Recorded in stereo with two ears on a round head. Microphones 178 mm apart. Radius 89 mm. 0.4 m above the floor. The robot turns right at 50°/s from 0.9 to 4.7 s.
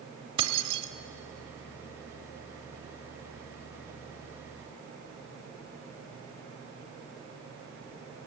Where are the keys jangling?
25° right (ahead or behind), 1.1 m.